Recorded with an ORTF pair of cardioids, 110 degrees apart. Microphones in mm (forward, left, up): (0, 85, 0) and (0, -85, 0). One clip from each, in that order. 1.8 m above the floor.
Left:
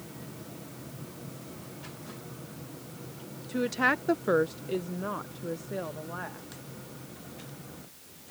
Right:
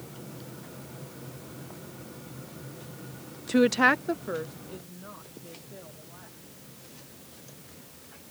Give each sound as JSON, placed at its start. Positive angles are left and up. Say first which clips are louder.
{"t": 3.5, "sound": "a woman speaking", "louder": "right 5 dB", "azimuth_deg": -55}